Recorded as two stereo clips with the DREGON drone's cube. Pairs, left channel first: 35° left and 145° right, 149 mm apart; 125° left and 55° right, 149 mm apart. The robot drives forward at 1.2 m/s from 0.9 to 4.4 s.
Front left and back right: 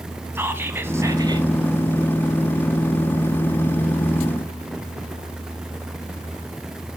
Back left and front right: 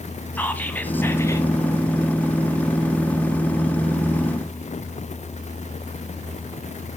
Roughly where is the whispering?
Behind.